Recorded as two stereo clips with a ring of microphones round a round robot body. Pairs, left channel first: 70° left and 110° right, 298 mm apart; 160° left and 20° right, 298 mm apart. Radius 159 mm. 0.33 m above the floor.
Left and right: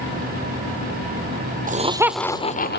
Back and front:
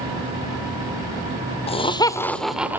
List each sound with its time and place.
1.7 s laughter: 150° right, 1.3 m; by 2.8 s 55° left, 1.3 m